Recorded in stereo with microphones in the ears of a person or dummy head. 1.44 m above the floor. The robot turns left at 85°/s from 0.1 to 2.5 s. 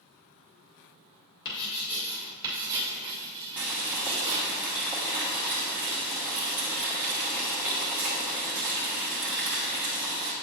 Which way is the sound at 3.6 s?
5° right (ahead or behind).